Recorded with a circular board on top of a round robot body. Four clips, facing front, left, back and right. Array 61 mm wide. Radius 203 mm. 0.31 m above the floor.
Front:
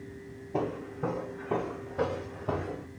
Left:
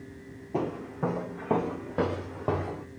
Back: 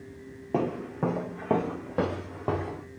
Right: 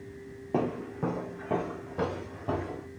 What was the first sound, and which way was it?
Footsteps, 145° right.